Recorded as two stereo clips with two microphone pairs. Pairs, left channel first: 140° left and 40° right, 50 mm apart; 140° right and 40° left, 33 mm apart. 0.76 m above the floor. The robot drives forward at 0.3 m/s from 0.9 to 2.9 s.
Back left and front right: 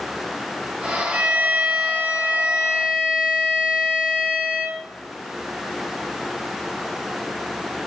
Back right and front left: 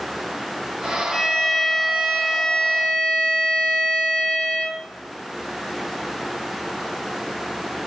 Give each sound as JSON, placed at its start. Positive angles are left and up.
{"t": 1.1, "sound": "a violin", "azimuth_deg": -55, "distance_m": 1.1}